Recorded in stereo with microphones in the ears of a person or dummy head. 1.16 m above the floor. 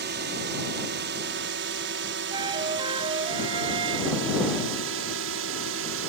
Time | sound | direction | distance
0.0 | a drone | 45° right (ahead or behind) | ?
2.3 | a flute | 25° right (ahead or behind) | ?